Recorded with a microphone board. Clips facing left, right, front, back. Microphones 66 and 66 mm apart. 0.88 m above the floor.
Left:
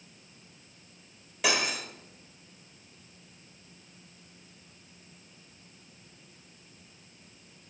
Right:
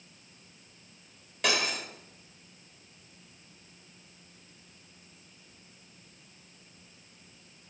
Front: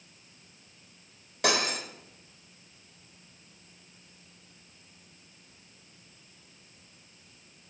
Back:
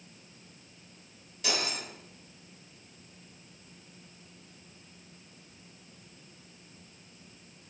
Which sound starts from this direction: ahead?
Cutlery clinking, at 1.4 s.